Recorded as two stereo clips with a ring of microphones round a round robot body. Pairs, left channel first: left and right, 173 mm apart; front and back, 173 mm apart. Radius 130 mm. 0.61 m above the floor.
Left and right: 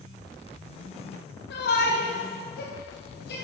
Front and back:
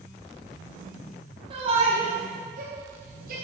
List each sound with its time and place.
1.5 s a shout: 115° left, 1.9 m; by 3.3 s 130° left, 3.5 m